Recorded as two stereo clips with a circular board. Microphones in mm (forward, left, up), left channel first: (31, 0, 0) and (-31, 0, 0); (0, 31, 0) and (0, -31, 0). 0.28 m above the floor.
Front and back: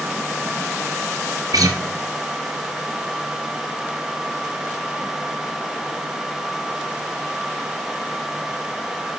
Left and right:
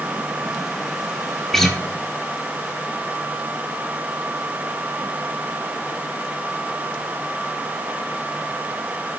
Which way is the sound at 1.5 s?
175° left.